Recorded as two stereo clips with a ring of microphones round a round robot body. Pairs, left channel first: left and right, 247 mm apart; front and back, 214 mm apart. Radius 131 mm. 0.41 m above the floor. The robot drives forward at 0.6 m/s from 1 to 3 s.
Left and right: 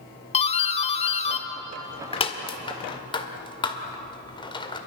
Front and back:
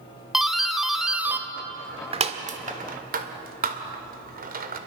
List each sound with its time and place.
0.3 s a doorbell: 95° left, 1.5 m; by 4.8 s 155° left, 1.9 m